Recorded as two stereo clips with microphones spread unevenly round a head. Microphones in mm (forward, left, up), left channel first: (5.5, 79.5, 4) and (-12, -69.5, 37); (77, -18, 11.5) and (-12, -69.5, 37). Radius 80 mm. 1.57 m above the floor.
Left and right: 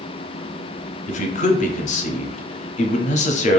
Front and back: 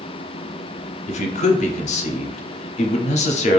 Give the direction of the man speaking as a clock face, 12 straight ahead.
11 o'clock.